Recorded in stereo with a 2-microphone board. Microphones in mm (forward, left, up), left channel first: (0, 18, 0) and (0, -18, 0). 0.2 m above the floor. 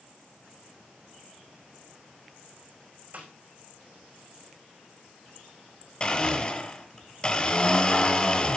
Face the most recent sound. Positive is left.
turn(degrees=30)  # may be behind; listen again after turning